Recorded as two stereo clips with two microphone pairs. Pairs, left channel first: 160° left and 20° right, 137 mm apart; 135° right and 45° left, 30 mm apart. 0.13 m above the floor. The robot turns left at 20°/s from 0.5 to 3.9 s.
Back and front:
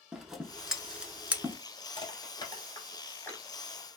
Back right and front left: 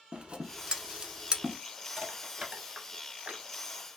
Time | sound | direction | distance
0.1 | scissors | 55° left | 0.5 m
2.0 | crushing | 120° left | 1.1 m